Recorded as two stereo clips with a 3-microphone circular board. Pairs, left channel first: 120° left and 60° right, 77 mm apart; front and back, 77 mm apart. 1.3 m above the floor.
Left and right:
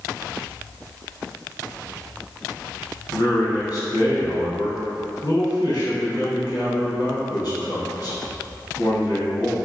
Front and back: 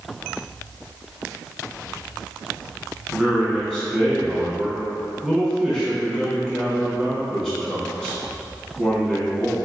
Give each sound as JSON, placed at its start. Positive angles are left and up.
{"t": 3.1, "sound": "a man speaking", "azimuth_deg": 80, "distance_m": 1.4}